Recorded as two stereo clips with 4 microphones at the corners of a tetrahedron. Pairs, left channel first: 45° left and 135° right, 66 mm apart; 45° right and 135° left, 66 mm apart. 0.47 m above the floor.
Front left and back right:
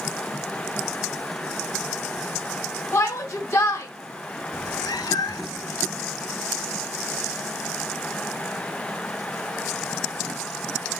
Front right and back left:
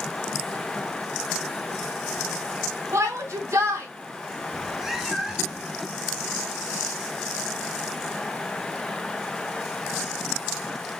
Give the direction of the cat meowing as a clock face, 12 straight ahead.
10 o'clock.